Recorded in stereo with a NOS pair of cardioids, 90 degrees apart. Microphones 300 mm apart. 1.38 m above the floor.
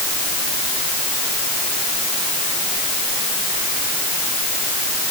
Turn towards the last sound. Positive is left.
No sound to turn to.